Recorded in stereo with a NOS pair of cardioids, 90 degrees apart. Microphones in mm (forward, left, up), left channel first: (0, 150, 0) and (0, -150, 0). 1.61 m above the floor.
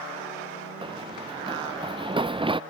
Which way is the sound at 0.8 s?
20° right.